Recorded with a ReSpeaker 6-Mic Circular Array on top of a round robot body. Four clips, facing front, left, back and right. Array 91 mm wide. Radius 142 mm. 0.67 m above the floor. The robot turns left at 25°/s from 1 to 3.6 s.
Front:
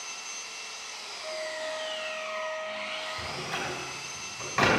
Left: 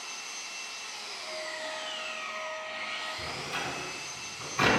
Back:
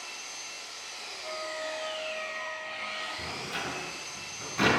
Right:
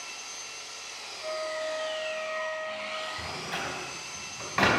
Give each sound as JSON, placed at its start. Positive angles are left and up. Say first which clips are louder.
{"t": 0.0, "sound": "an engine running", "louder": "even, front 1 dB", "azimuth_deg": 45, "distance_m": 5.0}
{"t": 1.2, "sound": "a flute", "louder": "right 7 dB, front 1 dB", "azimuth_deg": -65, "distance_m": 2.0}
{"t": 3.2, "sound": "a door slam", "louder": "right 1 dB, front 2 dB", "azimuth_deg": -40, "distance_m": 3.5}